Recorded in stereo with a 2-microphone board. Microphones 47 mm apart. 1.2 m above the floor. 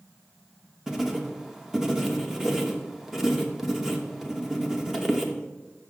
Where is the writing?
10° right (ahead or behind), 0.9 m.